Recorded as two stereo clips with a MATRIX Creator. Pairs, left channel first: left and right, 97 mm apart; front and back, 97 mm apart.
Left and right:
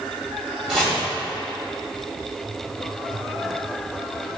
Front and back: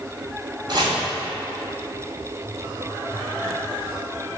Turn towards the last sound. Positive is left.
turn(degrees=-175)